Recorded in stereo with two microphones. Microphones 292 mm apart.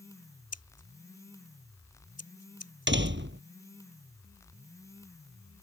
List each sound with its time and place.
0.5 s scissors: 60° left (ahead or behind)
2.9 s a door slam: 40° right (ahead or behind)